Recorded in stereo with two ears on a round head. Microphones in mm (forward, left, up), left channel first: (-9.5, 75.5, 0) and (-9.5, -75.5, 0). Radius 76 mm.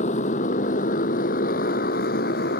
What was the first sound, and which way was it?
A motorcycle, 40° left (ahead or behind).